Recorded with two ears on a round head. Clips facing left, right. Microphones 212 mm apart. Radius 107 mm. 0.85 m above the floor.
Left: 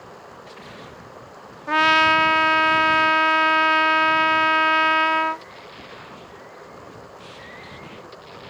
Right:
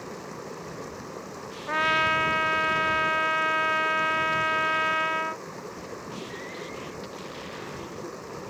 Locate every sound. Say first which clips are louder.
0.0 s running water: right 5 dB; 40° right (ahead or behind)
1.7 s a trumpet: left 8 dB; 50° left (ahead or behind)